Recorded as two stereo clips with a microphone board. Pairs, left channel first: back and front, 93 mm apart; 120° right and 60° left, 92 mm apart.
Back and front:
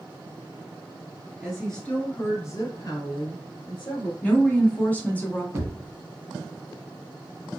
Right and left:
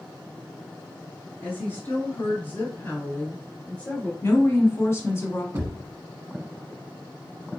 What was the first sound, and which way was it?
A woman speaking, 80° right.